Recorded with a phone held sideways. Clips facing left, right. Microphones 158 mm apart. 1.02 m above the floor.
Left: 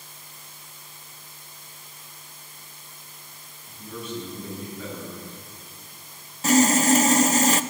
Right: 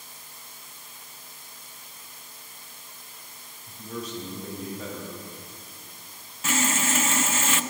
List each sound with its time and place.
3.7 s a man speaking: 40° right (ahead or behind), 6.5 m
6.4 s sawing: 40° left (ahead or behind), 0.6 m